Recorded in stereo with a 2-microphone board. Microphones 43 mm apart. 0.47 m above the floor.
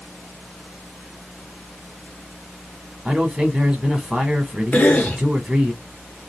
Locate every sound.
3.0 s a man speaking: 20° right (ahead or behind), 1.0 m
4.7 s a cough: 35° left (ahead or behind), 0.9 m